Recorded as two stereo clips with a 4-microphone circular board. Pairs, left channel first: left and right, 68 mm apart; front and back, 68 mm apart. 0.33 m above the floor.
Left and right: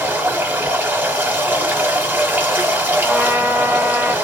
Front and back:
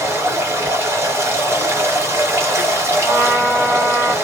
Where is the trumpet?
145° right, 1.6 m.